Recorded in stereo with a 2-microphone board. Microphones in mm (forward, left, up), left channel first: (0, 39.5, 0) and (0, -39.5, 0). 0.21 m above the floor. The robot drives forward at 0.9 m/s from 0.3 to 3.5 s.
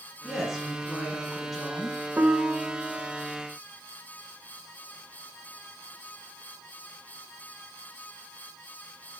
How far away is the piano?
About 0.6 m.